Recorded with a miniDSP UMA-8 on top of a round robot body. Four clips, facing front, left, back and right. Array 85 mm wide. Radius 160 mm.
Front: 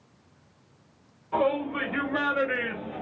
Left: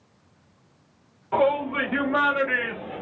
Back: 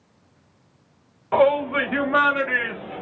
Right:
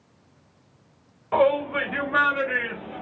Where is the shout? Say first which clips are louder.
Right 1 dB, back 8 dB; 160° right, 1.6 m; by 3.0 s 165° left, 2.5 m.